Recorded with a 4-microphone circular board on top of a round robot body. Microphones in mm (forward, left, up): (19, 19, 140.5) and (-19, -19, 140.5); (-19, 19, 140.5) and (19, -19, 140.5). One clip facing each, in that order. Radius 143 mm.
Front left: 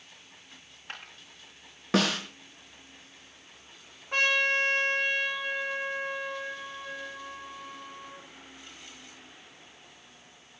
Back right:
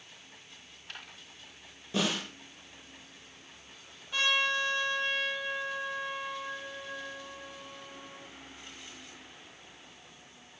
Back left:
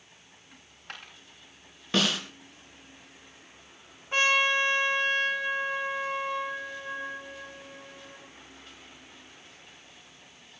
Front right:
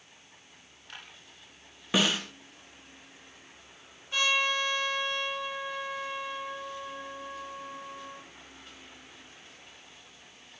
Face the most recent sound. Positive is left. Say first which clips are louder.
# front left 4 dB, back left 4 dB
turn(degrees=80)